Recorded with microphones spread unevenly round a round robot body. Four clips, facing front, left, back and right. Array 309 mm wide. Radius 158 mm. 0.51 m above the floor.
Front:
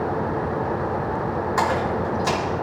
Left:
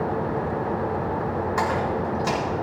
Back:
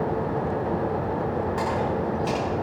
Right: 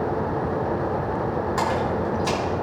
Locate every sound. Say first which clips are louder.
1.6 s a splash: even, front 3 dB; 5° left, 6 m